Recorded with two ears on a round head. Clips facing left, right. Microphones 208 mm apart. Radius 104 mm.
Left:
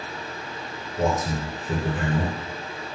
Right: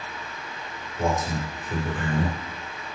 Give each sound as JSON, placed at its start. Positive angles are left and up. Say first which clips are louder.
{"t": 1.0, "sound": "a man speaking", "louder": "left 2 dB", "side_deg": 40, "distance_m": 1.9}